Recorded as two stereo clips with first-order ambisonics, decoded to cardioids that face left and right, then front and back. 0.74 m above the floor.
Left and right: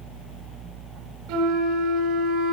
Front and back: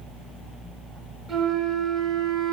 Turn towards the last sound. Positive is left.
turn(degrees=-115)